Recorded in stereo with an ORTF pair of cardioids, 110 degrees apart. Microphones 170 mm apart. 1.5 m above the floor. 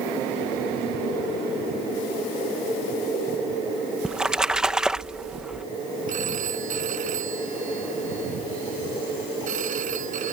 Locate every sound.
4.0 s a splash: 5° right
6.1 s a phone ringing: 50° right